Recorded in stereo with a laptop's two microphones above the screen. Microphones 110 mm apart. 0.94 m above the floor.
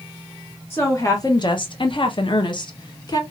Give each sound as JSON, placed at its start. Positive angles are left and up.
{"t": 0.7, "sound": "a woman speaking", "side_deg": 20, "distance_m": 0.7}